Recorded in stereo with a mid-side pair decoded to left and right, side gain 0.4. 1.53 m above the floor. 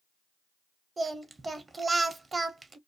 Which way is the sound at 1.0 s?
30° right.